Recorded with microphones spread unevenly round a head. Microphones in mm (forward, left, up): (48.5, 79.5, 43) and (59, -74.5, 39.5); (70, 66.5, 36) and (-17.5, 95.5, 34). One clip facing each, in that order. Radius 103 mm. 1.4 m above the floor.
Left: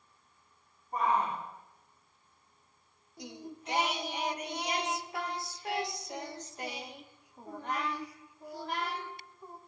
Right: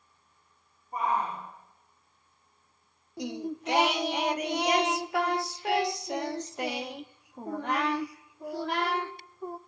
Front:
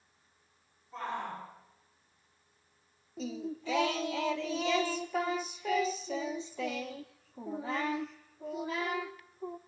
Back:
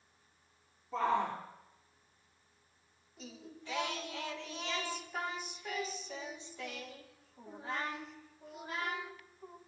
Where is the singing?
55° right, 0.9 m.